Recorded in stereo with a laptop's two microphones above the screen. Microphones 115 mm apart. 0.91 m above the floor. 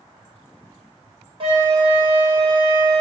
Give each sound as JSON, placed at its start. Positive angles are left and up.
{"t": 1.4, "sound": "a flute", "side_deg": -45, "distance_m": 1.2}